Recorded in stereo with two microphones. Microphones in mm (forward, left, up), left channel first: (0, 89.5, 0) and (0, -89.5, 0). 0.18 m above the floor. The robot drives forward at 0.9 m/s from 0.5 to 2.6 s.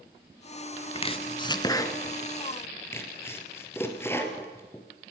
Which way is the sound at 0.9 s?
35° left (ahead or behind).